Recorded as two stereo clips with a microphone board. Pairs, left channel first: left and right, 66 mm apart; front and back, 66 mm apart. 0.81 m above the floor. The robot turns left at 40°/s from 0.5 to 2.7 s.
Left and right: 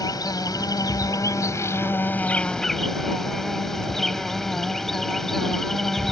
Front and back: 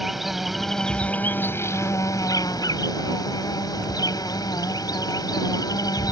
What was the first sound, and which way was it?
An insect, 95° left.